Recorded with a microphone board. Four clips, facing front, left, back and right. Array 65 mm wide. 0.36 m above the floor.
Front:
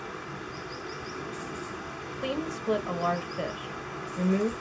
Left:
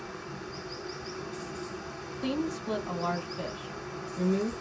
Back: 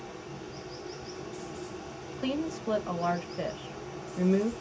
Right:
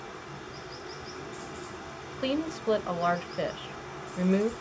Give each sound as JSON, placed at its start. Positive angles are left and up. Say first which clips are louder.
{"t": 0.0, "sound": "running water", "louder": "left 2 dB, front 4 dB", "azimuth_deg": 5, "distance_m": 1.6}
{"t": 2.2, "sound": "a woman speaking", "louder": "right 2 dB, back 1 dB", "azimuth_deg": -85, "distance_m": 1.2}